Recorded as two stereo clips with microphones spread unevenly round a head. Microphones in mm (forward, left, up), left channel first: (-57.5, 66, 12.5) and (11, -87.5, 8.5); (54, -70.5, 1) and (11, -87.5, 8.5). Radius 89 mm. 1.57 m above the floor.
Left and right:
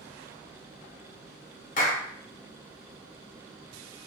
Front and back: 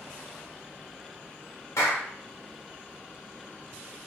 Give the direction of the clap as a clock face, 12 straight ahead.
10 o'clock.